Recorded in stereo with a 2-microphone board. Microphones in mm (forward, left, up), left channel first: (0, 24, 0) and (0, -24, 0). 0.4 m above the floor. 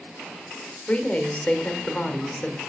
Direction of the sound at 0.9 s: 25° left (ahead or behind).